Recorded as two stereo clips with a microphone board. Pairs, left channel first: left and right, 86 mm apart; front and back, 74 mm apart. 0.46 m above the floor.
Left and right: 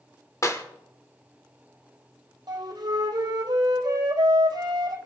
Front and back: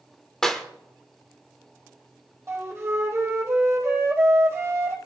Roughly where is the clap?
Left.